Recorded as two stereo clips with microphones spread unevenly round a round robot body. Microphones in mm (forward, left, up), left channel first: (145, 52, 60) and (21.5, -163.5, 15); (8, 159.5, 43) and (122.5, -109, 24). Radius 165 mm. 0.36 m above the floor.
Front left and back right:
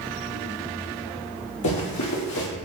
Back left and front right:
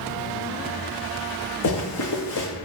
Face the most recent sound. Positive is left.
turn(degrees=90)